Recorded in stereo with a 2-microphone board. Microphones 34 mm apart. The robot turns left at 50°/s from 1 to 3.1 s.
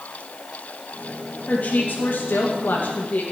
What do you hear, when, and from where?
1.5 s a woman speaking: 135° left, 2.0 m; by 3.2 s 50° left, 2.0 m